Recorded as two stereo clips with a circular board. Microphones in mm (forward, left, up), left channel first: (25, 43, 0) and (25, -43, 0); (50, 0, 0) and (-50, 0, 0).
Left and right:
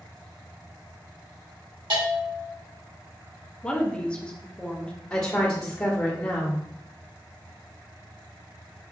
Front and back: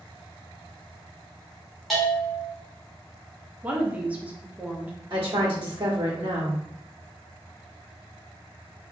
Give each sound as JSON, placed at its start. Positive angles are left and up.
{"t": 1.9, "sound": "a bell", "azimuth_deg": -90, "distance_m": 2.0}
{"t": 3.6, "sound": "a woman speaking", "azimuth_deg": 140, "distance_m": 0.8}
{"t": 5.1, "sound": "a woman speaking", "azimuth_deg": 160, "distance_m": 1.5}